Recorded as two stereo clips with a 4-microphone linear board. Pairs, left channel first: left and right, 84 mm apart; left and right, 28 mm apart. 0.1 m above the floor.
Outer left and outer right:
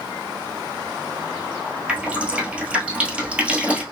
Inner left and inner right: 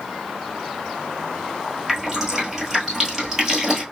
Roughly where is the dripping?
Centre.